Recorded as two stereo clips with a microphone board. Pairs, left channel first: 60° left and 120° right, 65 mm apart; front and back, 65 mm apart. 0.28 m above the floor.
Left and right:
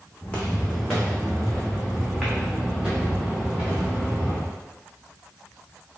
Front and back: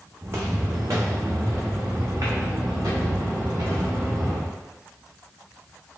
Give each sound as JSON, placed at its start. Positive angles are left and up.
{"t": 0.2, "sound": "footsteps", "azimuth_deg": 130, "distance_m": 1.1}